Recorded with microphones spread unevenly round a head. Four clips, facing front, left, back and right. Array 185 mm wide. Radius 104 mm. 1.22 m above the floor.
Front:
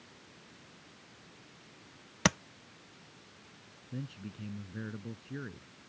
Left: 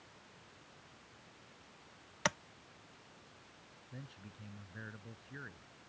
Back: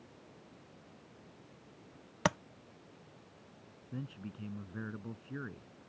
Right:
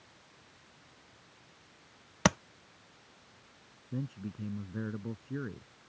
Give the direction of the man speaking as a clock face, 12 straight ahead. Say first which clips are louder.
Right 14 dB, front 1 dB; 4 o'clock.